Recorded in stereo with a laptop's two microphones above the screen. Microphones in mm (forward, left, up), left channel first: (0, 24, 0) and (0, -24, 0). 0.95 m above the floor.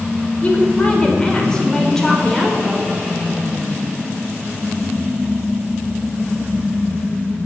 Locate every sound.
0.4 s a woman speaking: 25° left (ahead or behind), 4.5 m; by 2.9 s 5° left (ahead or behind), 4 m